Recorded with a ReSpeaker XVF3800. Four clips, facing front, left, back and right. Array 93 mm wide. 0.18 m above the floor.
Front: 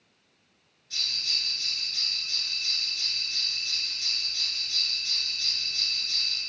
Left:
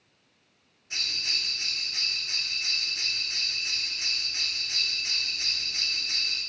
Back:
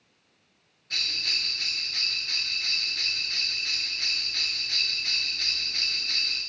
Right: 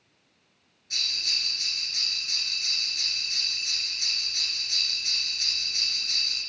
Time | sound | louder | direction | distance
0.9 | a bell | left 1 dB, back 4 dB | 150° left | 1.6 m